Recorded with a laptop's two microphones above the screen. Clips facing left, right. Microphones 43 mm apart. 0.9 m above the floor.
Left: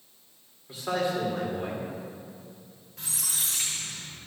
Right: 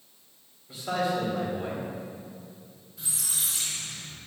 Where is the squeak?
85° left, 2 m.